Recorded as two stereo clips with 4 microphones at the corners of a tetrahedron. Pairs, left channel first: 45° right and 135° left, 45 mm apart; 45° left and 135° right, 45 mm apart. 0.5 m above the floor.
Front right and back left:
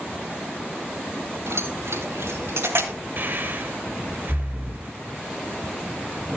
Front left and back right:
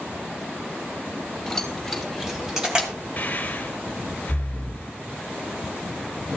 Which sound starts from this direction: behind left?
Keys jangling, at 1.5 s.